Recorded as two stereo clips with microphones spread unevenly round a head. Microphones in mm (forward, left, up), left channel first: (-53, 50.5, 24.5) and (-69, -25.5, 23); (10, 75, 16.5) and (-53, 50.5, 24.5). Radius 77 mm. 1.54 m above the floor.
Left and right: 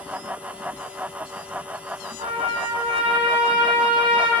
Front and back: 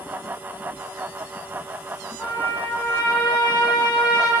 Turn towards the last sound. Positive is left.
turn(degrees=-60)